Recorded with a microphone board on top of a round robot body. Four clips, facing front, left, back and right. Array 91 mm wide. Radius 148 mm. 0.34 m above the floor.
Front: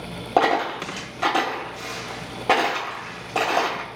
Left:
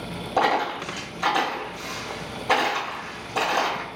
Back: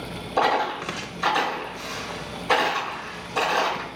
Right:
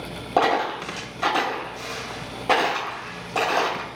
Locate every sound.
0.4 s a dropped coin: 25° right, 1.2 m